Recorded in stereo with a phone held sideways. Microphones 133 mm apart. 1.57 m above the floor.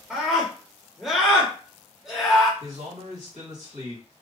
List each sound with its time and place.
0.1 s a scream: 5° right (ahead or behind), 0.8 m
2.6 s a man speaking: 70° right (ahead or behind), 1.8 m